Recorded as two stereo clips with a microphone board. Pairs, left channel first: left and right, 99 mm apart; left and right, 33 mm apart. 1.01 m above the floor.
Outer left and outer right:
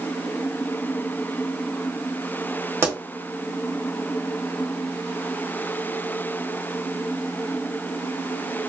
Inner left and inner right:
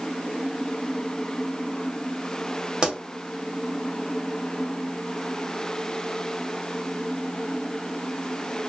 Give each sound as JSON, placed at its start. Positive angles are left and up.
{"t": 2.8, "sound": "a pop", "side_deg": -25, "distance_m": 1.1}